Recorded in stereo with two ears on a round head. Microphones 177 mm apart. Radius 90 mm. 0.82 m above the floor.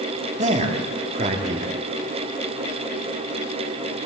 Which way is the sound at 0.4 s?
35° right (ahead or behind).